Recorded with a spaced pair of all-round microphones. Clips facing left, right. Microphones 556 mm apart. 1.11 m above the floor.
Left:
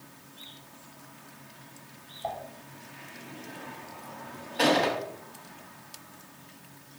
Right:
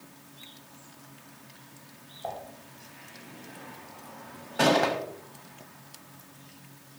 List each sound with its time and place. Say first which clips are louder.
2.2 s dishes clattering: left 1 dB; 20° left (ahead or behind), 3.5 m
4.6 s a gunshot: right 1 dB; 60° right (ahead or behind), 1.7 m